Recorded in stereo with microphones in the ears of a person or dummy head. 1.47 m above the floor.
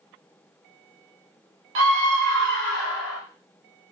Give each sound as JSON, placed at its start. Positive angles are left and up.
{"t": 1.8, "sound": "a scream", "side_deg": -65, "distance_m": 0.9}